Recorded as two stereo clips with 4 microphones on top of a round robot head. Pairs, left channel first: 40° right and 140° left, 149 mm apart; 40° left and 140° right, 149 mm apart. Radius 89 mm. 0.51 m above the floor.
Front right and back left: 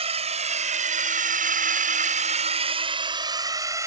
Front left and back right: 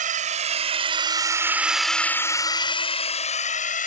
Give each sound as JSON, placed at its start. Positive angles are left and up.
{"t": 0.0, "sound": "a drone", "azimuth_deg": -170}